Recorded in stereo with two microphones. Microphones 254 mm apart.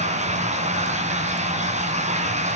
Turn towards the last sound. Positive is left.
turn(degrees=-25)  # may be behind; listen again after turning